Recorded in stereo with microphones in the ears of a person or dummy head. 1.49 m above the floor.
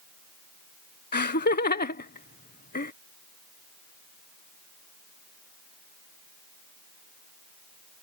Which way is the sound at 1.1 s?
40° left (ahead or behind).